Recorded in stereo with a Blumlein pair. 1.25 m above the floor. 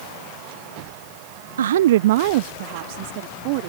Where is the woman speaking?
65° right; by 3.7 s 45° right.